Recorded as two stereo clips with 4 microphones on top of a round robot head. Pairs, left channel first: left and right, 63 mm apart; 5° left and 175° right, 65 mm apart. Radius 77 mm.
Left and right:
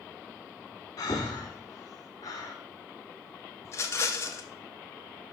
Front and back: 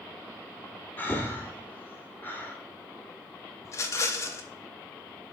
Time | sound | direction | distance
1.0 | breathing | 65° left | 1.7 m
3.6 | a rattle | 45° left | 0.9 m